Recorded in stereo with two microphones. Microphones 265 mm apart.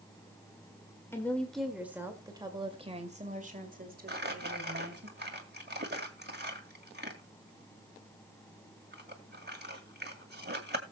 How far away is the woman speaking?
About 1.8 m.